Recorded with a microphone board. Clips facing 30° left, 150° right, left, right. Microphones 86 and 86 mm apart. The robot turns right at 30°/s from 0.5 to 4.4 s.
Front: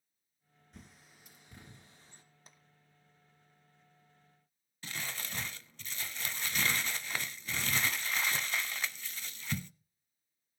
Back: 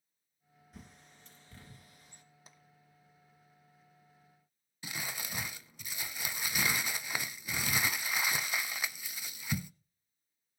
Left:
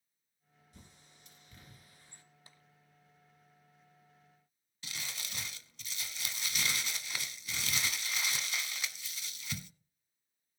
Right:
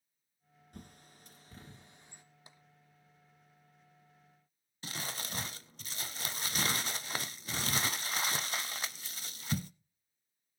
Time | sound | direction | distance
0.7 | a bird | 65° right | 2.5 m
2.5 | tapping | 70° right | 0.9 m
4.8 | crumpling | 75° right | 0.5 m